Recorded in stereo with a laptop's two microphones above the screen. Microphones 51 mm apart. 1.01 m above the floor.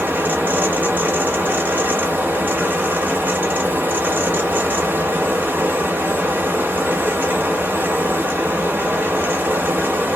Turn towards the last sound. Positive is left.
turn(degrees=-40)  # may be behind; listen again after turning